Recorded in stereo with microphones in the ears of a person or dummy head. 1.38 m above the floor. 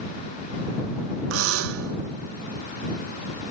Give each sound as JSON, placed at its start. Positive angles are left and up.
{"t": 1.3, "sound": "a buzzer", "side_deg": -80}